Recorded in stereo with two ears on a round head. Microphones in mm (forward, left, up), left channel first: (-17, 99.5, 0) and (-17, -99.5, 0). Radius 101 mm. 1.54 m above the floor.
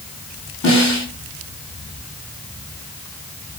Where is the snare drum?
35° left (ahead or behind), 3.5 m.